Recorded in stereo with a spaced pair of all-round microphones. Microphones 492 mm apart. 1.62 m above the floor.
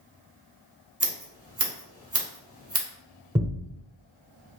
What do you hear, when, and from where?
1.0 s scissors: 30° right (ahead or behind), 1.5 m
3.4 s a thud: 10° right (ahead or behind), 1.6 m